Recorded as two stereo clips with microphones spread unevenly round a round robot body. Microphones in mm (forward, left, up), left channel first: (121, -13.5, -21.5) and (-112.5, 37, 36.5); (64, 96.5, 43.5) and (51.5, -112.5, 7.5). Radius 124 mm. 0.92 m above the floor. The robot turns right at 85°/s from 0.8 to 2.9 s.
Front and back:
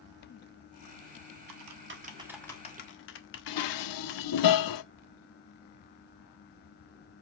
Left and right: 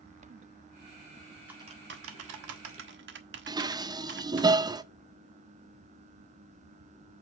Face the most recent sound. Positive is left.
turn(degrees=-20)